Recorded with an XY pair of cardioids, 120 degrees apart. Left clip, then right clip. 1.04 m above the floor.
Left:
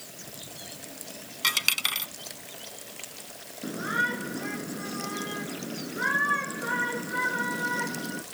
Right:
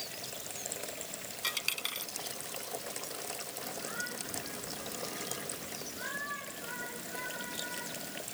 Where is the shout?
70° left.